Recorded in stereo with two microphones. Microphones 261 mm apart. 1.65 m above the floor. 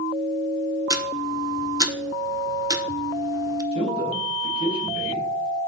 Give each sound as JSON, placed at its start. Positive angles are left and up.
{"t": 0.9, "sound": "ticking", "side_deg": -15, "distance_m": 0.7}
{"t": 3.7, "sound": "a man speaking", "side_deg": -25, "distance_m": 3.5}